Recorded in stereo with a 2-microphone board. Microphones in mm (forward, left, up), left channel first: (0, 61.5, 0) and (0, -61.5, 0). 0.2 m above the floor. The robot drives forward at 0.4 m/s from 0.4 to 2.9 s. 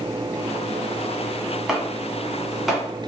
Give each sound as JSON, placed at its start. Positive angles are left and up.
{"t": 1.7, "sound": "chopping", "side_deg": -5, "distance_m": 1.1}